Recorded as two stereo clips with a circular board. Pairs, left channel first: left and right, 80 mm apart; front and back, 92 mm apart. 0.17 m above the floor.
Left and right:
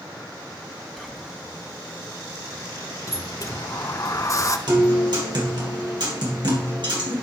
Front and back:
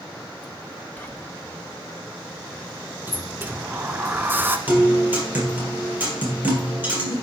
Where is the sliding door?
115° left, 0.7 m.